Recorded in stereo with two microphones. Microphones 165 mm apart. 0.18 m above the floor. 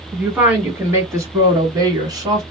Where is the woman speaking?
10° right (ahead or behind), 1.8 m; by 2.4 s 25° right (ahead or behind), 1.6 m.